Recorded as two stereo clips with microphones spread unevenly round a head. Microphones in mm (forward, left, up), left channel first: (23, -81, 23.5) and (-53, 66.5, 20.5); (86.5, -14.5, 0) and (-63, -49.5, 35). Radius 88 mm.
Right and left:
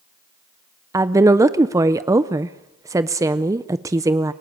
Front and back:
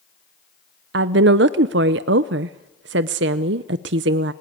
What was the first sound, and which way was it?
A woman speaking, 170° right.